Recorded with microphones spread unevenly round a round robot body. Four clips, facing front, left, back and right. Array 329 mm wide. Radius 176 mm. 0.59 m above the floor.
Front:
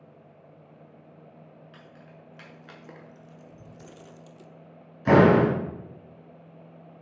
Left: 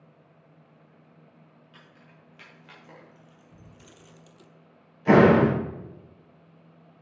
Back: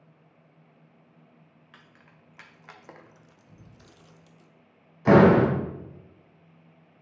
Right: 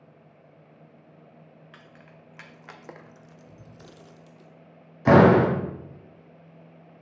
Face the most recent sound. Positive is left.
turn(degrees=-75)